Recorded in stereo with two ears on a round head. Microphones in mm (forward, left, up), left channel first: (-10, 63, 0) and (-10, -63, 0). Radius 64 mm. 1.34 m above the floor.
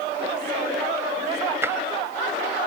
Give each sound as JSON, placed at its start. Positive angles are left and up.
{"t": 1.6, "sound": "tapping", "side_deg": -20}